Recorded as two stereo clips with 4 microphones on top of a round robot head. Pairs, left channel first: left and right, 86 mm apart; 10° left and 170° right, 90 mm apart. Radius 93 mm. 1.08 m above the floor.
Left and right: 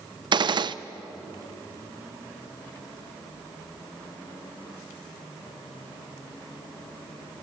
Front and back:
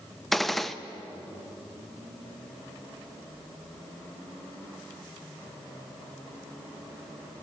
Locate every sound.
0.3 s a gunshot: 80° right, 0.6 m